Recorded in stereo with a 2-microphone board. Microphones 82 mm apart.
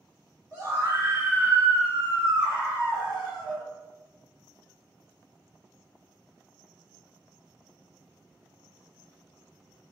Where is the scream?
40° right (ahead or behind), 1.3 m; by 3.6 s 5° left (ahead or behind), 1.8 m.